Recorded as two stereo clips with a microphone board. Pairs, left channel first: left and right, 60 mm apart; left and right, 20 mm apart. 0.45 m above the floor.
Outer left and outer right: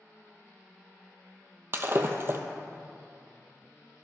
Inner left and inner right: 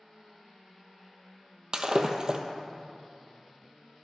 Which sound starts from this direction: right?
Breaking glass, at 1.7 s.